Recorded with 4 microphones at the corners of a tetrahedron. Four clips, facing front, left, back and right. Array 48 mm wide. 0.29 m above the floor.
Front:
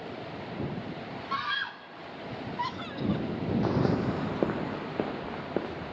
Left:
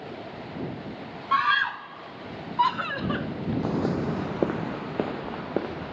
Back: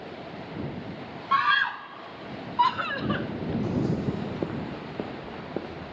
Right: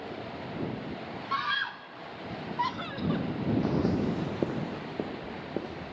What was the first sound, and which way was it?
A scream, 140° left.